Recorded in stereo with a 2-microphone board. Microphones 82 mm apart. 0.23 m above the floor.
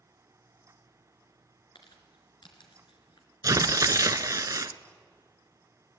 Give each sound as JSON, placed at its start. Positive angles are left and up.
{"t": 1.8, "sound": "crumpling", "side_deg": 70, "distance_m": 3.0}
{"t": 3.4, "sound": "tearing paper", "side_deg": -50, "distance_m": 0.7}